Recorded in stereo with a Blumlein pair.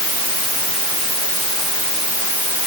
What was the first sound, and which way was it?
Only background noise.